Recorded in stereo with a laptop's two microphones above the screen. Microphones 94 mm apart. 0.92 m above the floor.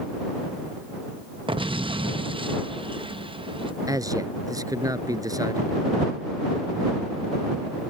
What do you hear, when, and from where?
1.5 s an explosion: 65° right (ahead or behind)
3.9 s a man speaking: 40° right (ahead or behind)